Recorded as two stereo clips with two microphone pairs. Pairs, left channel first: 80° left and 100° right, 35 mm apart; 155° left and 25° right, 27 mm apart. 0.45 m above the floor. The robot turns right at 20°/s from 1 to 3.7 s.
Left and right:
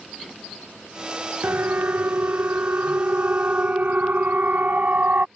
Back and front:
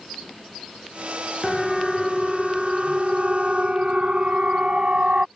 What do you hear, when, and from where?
1.4 s a siren: 115° right; by 5.3 s 70° right